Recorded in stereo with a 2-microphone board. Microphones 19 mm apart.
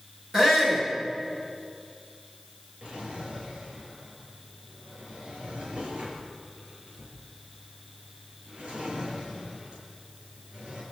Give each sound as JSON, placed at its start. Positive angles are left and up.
{"t": 0.3, "sound": "a shout", "side_deg": -30, "distance_m": 6.0}
{"t": 2.8, "sound": "a drawer", "side_deg": -80, "distance_m": 6.5}